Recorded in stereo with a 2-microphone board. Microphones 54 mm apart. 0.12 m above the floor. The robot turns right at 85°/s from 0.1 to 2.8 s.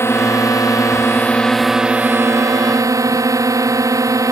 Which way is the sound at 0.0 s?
50° left.